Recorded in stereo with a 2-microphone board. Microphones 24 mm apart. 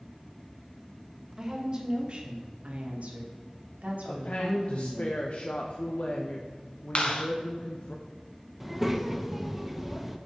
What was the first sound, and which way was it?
A woman speaking, 25° right (ahead or behind).